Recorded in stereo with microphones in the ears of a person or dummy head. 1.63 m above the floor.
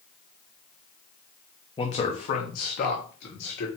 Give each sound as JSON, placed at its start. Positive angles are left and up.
{"t": 1.8, "sound": "a man speaking", "side_deg": 25, "distance_m": 0.8}